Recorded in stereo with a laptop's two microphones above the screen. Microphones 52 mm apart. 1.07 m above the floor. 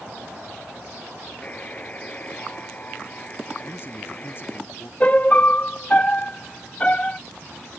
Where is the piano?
25° left (ahead or behind).